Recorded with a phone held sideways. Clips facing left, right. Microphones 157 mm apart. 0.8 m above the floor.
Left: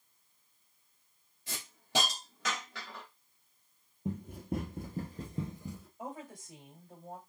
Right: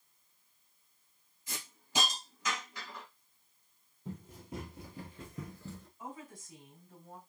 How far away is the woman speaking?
About 3.5 m.